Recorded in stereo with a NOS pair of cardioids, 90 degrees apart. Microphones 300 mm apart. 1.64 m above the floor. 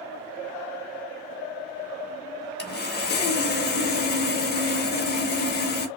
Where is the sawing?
35° left, 0.7 m.